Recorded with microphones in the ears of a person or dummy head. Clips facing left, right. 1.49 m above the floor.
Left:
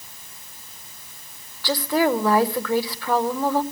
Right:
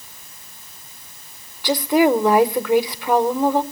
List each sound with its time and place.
1.6 s a woman speaking: 10° right (ahead or behind), 0.8 m